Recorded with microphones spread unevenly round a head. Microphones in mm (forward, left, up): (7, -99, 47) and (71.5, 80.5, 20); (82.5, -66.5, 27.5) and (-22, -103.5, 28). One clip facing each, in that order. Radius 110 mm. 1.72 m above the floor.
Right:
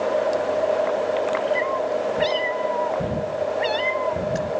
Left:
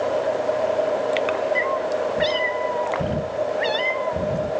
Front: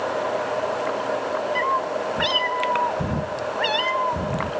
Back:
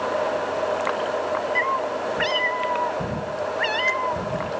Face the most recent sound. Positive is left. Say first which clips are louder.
# even, front 1 dB
turn(degrees=-30)